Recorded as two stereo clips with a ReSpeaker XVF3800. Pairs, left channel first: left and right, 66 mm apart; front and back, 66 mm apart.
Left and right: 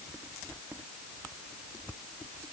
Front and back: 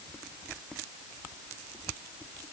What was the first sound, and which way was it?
Only background noise.